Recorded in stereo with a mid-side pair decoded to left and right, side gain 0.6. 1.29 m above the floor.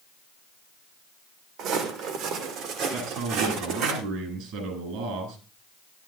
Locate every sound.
1.6 s footsteps: 65° right, 4 m; by 3.9 s 75° right, 5.5 m
2.9 s a man speaking: 70° right, 9.5 m